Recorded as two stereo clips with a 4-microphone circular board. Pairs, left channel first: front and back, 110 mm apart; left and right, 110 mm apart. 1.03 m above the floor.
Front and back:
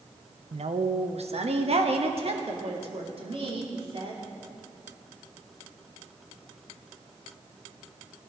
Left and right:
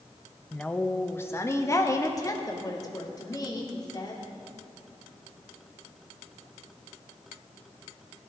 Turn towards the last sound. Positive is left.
turn(degrees=145)